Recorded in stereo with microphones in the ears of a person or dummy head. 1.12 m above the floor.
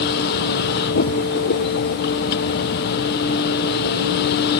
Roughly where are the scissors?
No scissors in this recording.